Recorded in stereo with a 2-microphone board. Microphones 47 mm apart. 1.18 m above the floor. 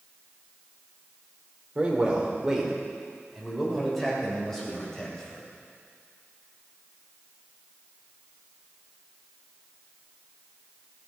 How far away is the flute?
I don't hear a flute.